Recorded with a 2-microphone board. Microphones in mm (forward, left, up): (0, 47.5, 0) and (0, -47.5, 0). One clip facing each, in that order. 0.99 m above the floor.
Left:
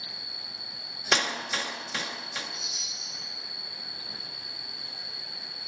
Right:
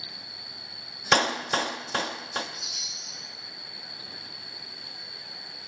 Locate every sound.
0.0 s an insect: 85° left, 3.5 m
1.1 s a clap: 45° right (ahead or behind), 0.9 m
2.5 s a chime: 70° right (ahead or behind), 7 m